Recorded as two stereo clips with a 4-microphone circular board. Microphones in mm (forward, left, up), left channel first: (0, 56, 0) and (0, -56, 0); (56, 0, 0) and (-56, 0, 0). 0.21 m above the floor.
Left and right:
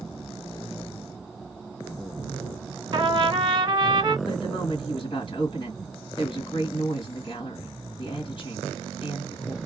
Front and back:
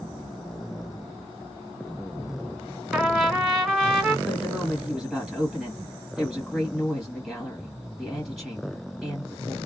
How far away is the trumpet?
About 1.2 m.